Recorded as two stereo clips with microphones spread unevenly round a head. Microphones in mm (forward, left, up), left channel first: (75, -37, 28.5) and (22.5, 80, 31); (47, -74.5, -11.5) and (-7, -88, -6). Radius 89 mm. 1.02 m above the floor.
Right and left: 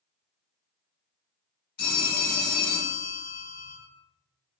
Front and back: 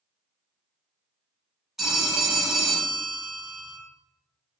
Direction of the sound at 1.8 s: 85° right.